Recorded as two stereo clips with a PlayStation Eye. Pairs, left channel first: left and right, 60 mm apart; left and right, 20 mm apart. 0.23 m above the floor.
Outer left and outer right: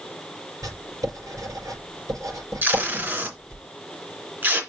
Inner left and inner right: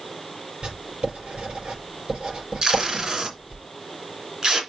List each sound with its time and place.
0.6 s writing: 75° right (ahead or behind), 6 m
2.6 s tape being pulled: 35° right (ahead or behind), 2.5 m